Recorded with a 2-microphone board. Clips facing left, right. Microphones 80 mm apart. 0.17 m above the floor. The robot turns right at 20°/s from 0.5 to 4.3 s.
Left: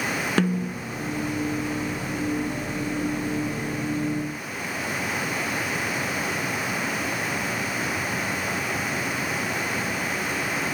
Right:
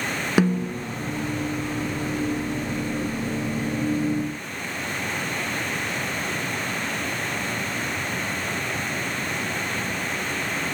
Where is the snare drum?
10° right (ahead or behind), 0.6 m; by 0.9 s 15° right (ahead or behind), 0.6 m.